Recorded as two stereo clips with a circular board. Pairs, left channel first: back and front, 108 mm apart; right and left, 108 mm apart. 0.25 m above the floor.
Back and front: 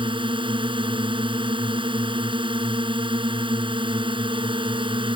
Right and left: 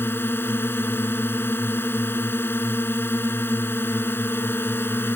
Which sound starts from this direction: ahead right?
A drone, at 0.0 s.